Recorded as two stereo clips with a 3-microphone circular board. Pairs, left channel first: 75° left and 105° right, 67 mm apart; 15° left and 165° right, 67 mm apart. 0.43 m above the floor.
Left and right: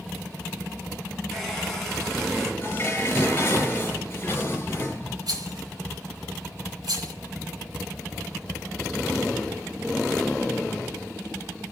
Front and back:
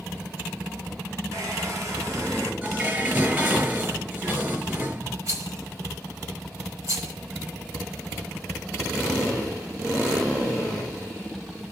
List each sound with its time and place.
1.3 s a hair dryer: 160° left, 4.5 m
2.6 s dishes clattering: 135° left, 5 m
5.3 s a rattle: 120° right, 3 m